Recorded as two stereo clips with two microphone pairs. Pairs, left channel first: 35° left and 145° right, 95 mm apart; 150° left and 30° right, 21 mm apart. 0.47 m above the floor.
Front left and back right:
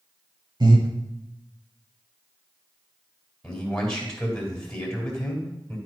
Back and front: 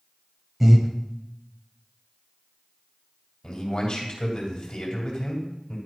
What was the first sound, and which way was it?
Breathing, 110° right.